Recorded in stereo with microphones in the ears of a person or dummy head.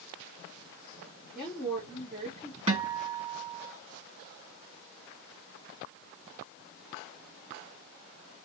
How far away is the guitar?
About 2 m.